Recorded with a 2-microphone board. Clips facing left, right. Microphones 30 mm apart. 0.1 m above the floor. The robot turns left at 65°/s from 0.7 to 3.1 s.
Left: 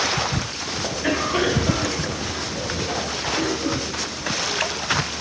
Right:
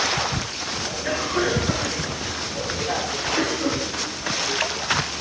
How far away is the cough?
About 3.5 m.